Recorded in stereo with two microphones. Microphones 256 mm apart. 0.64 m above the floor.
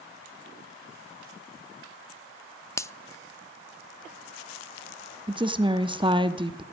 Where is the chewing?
I don't hear chewing.